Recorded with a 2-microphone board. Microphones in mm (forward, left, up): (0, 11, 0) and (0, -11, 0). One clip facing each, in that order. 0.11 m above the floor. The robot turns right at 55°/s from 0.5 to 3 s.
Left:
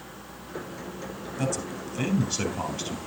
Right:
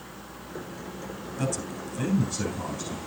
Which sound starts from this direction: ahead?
A man speaking, at 1.4 s.